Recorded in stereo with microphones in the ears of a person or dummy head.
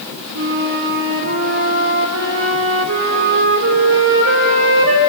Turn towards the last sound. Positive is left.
turn(degrees=-65)  # may be behind; listen again after turning